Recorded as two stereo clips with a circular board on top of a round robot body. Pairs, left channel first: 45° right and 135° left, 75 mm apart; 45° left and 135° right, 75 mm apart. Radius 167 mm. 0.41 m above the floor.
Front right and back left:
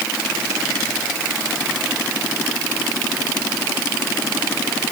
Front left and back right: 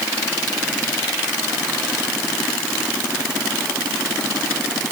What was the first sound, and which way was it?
Only background noise.